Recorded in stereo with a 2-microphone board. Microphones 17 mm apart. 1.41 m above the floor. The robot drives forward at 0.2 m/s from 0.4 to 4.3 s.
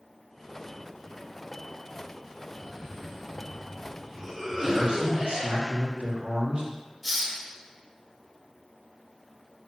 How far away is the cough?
About 1.0 m.